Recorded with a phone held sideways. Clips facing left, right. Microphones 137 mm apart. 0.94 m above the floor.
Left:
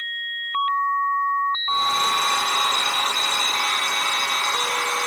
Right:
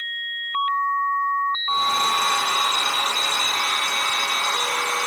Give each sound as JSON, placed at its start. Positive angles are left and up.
{"t": 1.7, "sound": "a hair dryer", "side_deg": -5, "distance_m": 0.6}